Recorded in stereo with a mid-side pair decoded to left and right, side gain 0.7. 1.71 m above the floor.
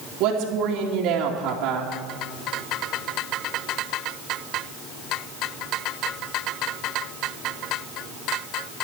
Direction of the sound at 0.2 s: 60° right.